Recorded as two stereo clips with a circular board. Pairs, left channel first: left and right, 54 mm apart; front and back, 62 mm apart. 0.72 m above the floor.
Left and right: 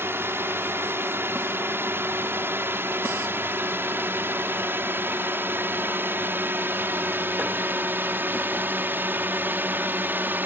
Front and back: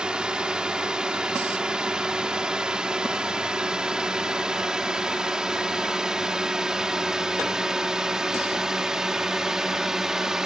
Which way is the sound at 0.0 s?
110° right.